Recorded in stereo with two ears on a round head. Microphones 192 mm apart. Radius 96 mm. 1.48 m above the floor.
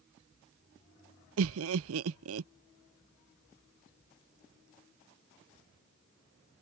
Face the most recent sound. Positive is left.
turn(degrees=-70)  # may be behind; listen again after turning